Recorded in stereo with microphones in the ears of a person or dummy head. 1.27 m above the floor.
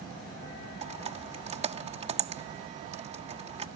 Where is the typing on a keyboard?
35° right (ahead or behind).